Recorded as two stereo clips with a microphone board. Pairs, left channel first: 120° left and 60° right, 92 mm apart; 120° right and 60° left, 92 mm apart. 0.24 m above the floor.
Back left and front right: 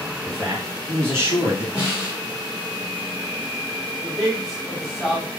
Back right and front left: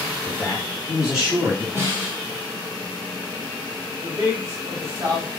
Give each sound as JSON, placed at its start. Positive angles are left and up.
{"t": 0.2, "sound": "a man speaking", "azimuth_deg": -40, "distance_m": 1.9}
{"t": 1.8, "sound": "a snare drum", "azimuth_deg": 10, "distance_m": 2.0}
{"t": 4.0, "sound": "a man speaking", "azimuth_deg": 30, "distance_m": 2.0}